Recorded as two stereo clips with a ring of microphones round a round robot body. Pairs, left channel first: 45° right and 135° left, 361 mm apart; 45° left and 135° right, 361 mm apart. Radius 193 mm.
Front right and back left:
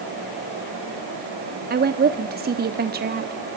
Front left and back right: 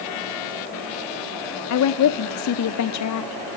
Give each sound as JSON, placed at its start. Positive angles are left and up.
{"t": 1.7, "sound": "a woman speaking", "azimuth_deg": 75, "distance_m": 0.9}